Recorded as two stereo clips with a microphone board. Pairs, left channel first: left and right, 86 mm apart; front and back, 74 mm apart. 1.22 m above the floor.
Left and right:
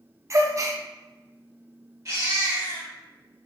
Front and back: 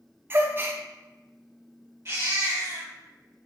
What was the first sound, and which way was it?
A gasp, 130° right.